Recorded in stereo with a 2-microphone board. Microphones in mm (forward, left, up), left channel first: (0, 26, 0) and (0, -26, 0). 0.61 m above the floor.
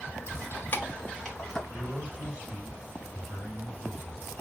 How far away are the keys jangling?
About 1.0 m.